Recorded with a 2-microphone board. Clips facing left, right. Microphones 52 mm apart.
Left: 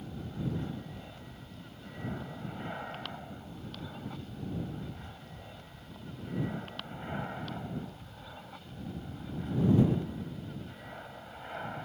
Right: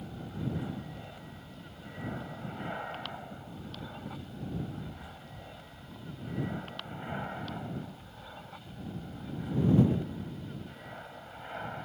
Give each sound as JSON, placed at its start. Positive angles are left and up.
{"t": 0.0, "sound": "an aircraft", "side_deg": -10}